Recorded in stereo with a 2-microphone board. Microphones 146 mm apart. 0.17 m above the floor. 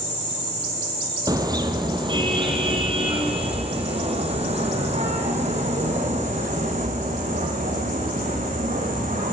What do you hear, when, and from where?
1.3 s a car horn: 25° right (ahead or behind), 3.5 m; by 9.3 s 60° right (ahead or behind), 7 m